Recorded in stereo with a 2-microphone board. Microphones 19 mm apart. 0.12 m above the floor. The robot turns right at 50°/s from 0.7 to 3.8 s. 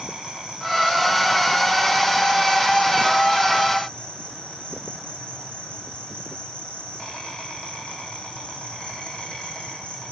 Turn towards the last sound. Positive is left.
turn(degrees=115)